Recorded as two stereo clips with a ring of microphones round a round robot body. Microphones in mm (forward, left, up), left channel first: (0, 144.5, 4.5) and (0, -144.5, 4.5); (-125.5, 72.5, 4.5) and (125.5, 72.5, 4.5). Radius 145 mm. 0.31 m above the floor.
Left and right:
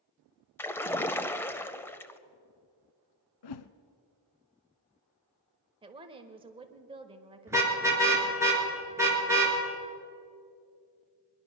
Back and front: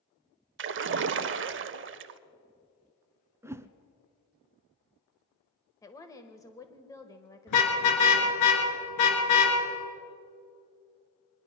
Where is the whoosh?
80° left, 0.7 m.